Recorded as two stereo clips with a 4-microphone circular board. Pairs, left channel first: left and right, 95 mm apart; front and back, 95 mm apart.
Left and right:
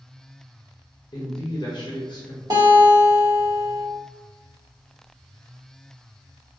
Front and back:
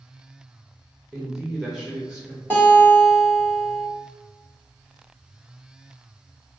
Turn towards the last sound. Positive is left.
turn(degrees=-60)